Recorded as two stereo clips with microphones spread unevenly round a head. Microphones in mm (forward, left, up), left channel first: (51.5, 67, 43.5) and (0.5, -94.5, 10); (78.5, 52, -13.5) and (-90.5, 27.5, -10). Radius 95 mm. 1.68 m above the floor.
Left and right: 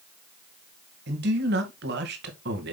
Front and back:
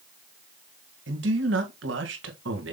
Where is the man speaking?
140° right, 2 m.